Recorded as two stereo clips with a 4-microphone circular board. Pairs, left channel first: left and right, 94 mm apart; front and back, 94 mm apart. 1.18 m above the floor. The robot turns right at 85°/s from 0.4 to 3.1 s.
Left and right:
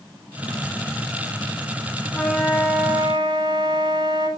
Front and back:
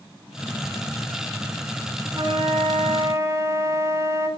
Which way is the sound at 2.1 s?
155° left.